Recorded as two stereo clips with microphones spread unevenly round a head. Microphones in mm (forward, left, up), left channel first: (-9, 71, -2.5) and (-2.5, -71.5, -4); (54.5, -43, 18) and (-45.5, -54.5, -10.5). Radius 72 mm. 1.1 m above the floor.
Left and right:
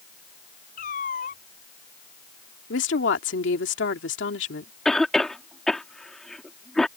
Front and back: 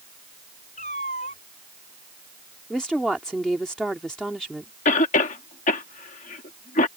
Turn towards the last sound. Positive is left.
turn(degrees=5)